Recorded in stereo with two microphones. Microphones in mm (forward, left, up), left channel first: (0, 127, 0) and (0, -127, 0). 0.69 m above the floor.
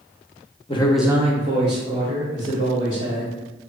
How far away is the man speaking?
About 0.6 m.